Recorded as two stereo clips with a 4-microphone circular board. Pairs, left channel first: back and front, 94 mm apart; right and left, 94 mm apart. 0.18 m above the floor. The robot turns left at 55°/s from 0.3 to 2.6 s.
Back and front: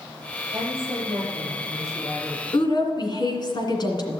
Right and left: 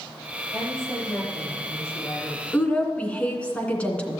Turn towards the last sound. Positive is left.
turn(degrees=-165)